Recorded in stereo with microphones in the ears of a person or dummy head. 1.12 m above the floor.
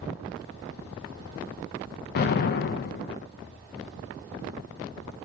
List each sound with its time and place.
2.1 s an explosion: 65° left (ahead or behind), 0.5 m